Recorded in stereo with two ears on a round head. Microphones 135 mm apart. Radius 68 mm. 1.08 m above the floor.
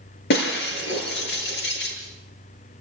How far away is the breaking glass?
About 5 m.